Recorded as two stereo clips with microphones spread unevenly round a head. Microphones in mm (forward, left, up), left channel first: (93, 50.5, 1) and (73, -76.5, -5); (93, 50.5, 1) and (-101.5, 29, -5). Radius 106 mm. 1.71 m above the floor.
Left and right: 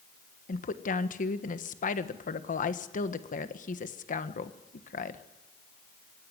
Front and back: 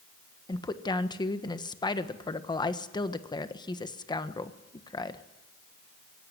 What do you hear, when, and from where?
0.5 s a woman speaking: 75° left, 1.4 m